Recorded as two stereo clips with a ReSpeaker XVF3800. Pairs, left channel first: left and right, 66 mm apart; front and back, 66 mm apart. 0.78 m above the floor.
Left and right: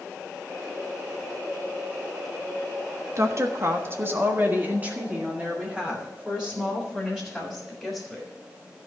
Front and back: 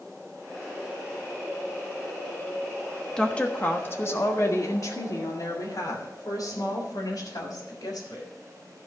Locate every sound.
3.2 s a woman speaking: 75° right, 1.3 m; by 8.3 s 5° right, 4.5 m